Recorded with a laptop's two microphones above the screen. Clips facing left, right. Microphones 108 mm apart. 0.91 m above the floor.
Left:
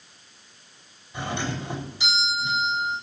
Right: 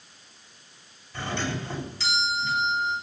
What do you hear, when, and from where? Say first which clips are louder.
1.1 s a doorbell: left 1 dB; 20° left (ahead or behind), 3 m